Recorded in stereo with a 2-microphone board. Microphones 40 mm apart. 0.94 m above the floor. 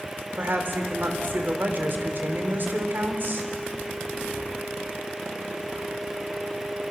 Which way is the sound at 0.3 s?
55° right (ahead or behind).